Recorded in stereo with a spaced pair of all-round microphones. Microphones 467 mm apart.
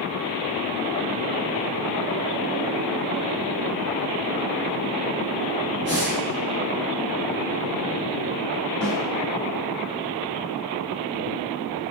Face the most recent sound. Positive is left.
turn(degrees=0)  # may be behind; listen again after turning